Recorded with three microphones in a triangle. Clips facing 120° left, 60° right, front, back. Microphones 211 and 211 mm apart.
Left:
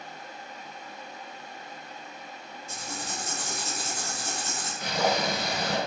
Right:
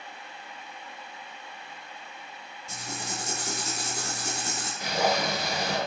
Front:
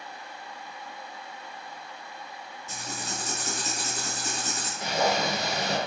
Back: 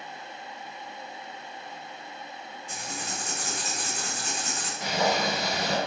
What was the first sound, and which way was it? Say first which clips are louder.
Writing: right 1 dB, front 1 dB; 55° right.